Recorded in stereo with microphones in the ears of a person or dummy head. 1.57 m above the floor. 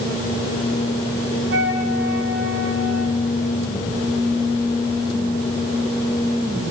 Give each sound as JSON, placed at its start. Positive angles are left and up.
{"t": 1.5, "sound": "a flute", "side_deg": -50, "distance_m": 4.0}